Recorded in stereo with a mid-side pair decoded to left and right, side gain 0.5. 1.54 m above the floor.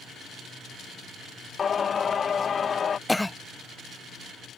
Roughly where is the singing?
Ahead left.